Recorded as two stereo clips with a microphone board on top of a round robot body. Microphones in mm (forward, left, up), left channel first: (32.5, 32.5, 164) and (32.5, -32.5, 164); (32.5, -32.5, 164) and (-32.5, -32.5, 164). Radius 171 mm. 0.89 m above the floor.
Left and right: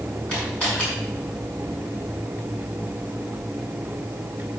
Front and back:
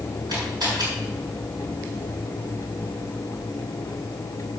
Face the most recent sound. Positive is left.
turn(degrees=160)